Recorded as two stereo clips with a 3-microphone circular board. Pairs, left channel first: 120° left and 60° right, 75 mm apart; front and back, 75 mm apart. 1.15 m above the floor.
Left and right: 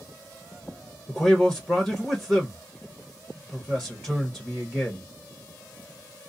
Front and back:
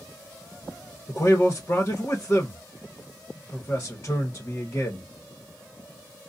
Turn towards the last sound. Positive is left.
turn(degrees=50)